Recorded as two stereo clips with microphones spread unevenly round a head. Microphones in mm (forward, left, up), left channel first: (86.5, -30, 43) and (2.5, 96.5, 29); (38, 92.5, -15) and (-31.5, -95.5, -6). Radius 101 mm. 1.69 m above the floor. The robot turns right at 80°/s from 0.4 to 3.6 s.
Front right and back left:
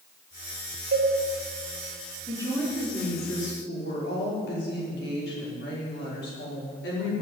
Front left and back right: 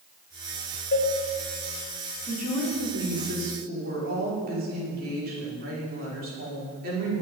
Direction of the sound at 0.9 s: 110° left.